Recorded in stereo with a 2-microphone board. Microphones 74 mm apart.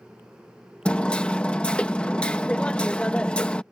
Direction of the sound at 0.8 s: 10° left (ahead or behind).